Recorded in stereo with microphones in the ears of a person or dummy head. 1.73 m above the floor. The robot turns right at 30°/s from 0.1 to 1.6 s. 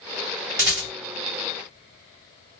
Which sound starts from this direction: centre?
A rattle, at 0.6 s.